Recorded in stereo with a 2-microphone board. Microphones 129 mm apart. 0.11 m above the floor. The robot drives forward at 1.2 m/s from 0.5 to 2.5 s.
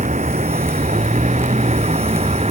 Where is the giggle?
I don't hear a giggle.